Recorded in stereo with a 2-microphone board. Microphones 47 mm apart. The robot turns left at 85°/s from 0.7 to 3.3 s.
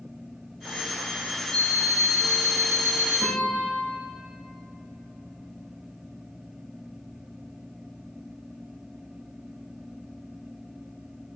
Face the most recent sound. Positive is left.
turn(degrees=60)  # may be behind; listen again after turning